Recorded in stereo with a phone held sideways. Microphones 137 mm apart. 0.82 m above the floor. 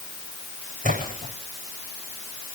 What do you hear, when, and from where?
0.8 s a splash: 80° right, 9.5 m